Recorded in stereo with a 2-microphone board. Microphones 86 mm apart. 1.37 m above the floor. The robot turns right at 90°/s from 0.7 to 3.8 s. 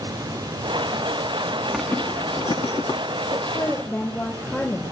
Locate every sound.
1.7 s a zipper: centre (ahead or behind), 1.4 m; by 3.0 s 60° left (ahead or behind), 1.4 m
3.3 s a woman speaking: 130° left, 6 m; by 4.8 s 175° left, 6 m